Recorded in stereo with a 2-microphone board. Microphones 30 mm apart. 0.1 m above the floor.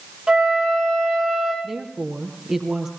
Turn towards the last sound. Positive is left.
turn(degrees=-15)  # may be behind; listen again after turning